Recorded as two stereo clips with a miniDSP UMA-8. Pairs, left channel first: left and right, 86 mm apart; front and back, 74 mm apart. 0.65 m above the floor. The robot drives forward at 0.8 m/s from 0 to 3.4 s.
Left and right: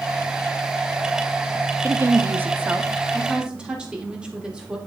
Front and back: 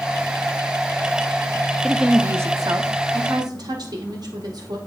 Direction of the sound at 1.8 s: 80° right.